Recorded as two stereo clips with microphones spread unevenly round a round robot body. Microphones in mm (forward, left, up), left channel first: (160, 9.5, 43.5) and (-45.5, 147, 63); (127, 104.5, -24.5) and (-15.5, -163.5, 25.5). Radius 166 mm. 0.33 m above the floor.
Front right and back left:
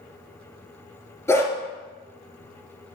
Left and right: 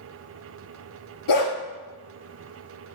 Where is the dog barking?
45° left, 2.5 m.